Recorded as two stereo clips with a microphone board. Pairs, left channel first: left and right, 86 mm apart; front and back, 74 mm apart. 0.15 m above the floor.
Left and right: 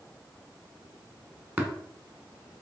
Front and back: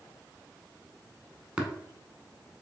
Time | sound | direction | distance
1.6 | tapping | 120° right | 1.0 m